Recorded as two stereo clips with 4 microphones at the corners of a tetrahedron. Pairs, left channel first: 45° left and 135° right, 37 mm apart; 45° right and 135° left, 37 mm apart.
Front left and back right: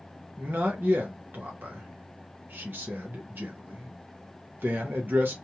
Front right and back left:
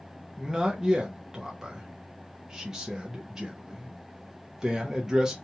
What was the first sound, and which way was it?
A man speaking, 150° right.